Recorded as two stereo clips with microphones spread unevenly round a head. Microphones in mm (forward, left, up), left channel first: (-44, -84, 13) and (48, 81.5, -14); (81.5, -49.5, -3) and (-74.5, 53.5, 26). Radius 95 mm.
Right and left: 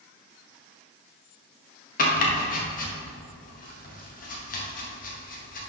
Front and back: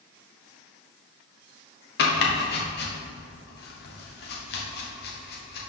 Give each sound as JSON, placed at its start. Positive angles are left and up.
{"t": 2.0, "sound": "chopping", "azimuth_deg": -70, "distance_m": 1.3}